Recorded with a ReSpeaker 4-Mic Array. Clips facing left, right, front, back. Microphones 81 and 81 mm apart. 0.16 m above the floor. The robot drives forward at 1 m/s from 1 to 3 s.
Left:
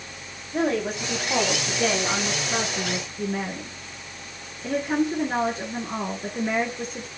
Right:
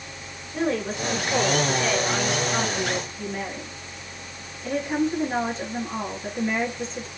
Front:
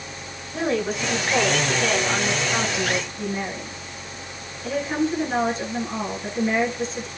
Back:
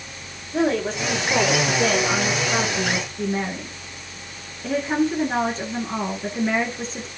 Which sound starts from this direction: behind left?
A woman speaking, at 0.5 s.